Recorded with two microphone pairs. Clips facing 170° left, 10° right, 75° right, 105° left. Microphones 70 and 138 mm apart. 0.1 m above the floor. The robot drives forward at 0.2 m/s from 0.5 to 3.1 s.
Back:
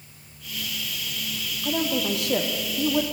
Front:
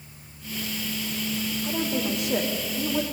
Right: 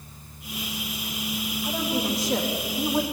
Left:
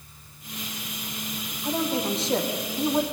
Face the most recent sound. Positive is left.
turn(degrees=170)